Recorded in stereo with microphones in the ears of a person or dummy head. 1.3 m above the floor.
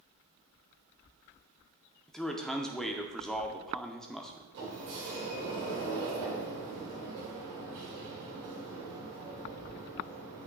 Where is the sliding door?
65° right (ahead or behind), 2 m.